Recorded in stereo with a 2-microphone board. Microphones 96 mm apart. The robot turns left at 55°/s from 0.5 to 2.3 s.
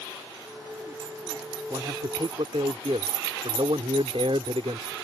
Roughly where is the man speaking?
Ahead right.